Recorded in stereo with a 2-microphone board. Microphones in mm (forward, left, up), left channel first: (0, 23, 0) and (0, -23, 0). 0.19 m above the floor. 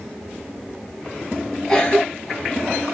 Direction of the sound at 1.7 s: 15° left (ahead or behind).